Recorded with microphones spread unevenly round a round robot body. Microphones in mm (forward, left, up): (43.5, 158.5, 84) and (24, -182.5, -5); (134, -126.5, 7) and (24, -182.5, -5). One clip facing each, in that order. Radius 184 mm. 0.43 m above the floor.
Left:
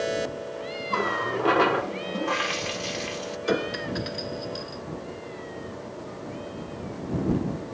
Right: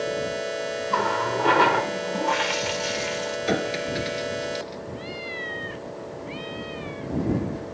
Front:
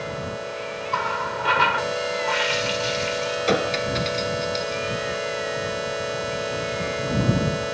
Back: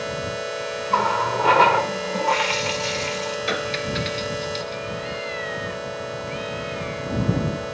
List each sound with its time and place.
0.9 s a running tap: 160° right
3.5 s a clink: 25° right